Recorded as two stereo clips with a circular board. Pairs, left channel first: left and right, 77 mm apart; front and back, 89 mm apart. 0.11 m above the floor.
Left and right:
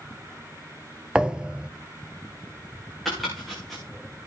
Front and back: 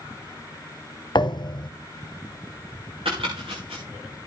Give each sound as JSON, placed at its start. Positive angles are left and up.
{"t": 1.1, "sound": "a thud", "azimuth_deg": -10, "distance_m": 0.8}
{"t": 3.0, "sound": "chopping", "azimuth_deg": 180, "distance_m": 9.0}